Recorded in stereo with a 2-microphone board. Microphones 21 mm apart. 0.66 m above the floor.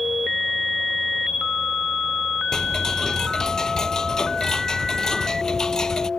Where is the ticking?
30° left (ahead or behind).